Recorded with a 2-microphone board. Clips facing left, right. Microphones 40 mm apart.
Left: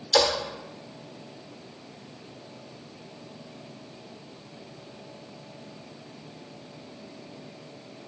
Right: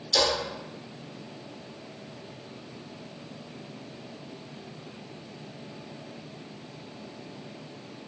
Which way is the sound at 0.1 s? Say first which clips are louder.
Left 3 dB; 55° left (ahead or behind).